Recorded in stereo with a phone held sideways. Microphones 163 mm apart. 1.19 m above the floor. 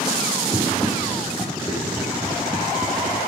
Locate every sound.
0.5 s running footsteps: 15° left (ahead or behind), 2.5 m